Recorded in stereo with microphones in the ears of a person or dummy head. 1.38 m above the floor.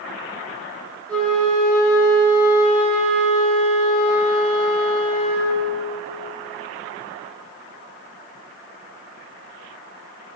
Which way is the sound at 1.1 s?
5° left (ahead or behind).